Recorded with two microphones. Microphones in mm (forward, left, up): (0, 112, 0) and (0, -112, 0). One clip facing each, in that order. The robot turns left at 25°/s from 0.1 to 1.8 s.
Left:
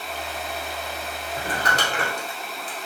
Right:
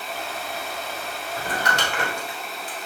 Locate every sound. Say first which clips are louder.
1.4 s crumpling: even; 25° left (ahead or behind), 1.4 m; by 2.9 s 35° left (ahead or behind), 1.4 m